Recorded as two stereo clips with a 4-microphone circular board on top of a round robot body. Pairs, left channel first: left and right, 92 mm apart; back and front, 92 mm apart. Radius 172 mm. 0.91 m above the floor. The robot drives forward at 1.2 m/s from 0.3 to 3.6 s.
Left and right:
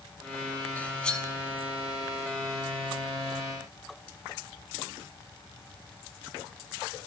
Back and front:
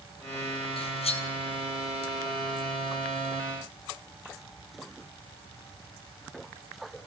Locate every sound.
0.8 s cutlery clinking: 165° left, 0.7 m; by 1.3 s 170° left, 1.3 m